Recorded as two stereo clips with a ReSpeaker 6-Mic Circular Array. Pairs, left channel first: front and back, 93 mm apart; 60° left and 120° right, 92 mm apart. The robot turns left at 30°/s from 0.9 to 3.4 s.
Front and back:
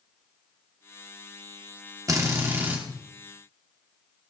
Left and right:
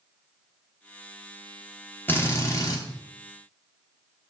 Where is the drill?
130° left, 2.5 m; by 2.8 s 105° left, 2.5 m.